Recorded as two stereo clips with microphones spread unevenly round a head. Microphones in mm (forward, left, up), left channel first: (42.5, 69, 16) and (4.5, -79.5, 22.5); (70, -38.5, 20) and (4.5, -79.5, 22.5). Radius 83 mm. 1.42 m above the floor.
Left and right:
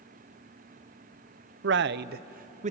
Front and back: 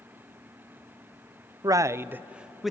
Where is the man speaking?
105° right, 0.7 m; by 2.7 s 60° right, 0.8 m.